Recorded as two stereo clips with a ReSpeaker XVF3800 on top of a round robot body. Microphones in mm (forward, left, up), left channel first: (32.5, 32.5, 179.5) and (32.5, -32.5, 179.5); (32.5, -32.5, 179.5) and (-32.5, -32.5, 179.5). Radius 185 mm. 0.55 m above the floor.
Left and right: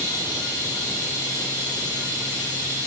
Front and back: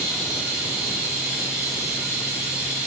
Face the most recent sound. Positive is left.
turn(degrees=95)